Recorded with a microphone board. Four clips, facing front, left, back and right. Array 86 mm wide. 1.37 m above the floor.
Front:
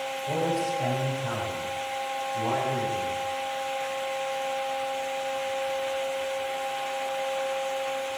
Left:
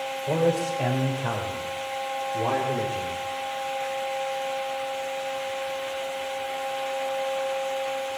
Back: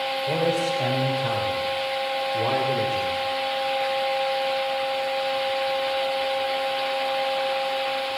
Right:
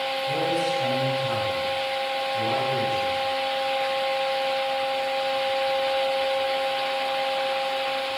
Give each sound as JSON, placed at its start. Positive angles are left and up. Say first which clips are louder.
{"t": 0.3, "sound": "a man speaking", "louder": "left 3 dB, back 3 dB", "azimuth_deg": 115, "distance_m": 6.0}